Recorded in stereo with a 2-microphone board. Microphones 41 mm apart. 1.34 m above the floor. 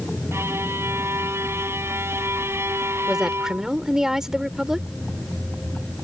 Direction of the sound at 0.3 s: 85° right.